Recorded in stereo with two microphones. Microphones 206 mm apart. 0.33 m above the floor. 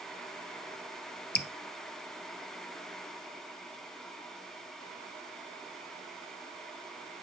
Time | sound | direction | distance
1.4 | dripping | 55° left (ahead or behind) | 0.8 m